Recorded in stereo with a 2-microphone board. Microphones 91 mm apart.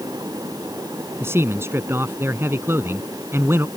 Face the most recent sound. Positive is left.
turn(degrees=-25)  # may be behind; listen again after turning